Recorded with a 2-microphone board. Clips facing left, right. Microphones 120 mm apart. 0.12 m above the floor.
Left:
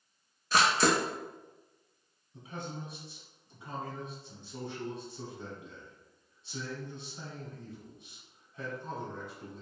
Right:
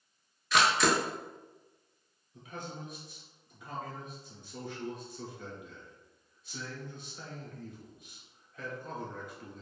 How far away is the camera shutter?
About 0.7 m.